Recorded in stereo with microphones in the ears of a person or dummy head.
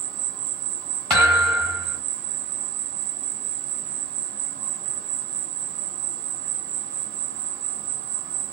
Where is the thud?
5° left (ahead or behind), 0.9 m.